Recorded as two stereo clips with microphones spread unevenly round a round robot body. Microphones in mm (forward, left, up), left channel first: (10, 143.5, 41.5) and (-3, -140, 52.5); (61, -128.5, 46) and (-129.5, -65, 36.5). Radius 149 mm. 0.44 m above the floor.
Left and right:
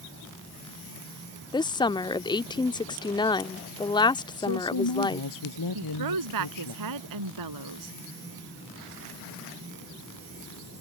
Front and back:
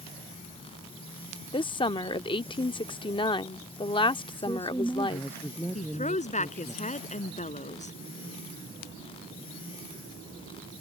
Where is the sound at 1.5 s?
30° left.